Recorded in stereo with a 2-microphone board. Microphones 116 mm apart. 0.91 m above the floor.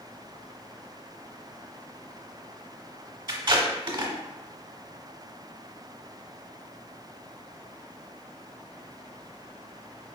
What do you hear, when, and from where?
3.3 s tape being pulled: 40° right (ahead or behind), 1.2 m